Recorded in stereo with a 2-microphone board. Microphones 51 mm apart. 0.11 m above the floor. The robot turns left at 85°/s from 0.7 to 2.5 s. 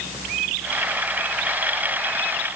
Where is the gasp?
I don't hear a gasp.